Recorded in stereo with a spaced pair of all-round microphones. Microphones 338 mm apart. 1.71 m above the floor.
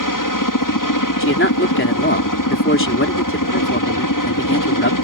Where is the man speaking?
35° left (ahead or behind).